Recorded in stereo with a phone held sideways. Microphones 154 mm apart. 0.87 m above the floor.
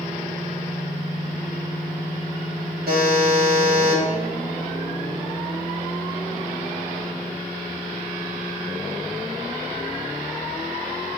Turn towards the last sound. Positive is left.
turn(degrees=-80)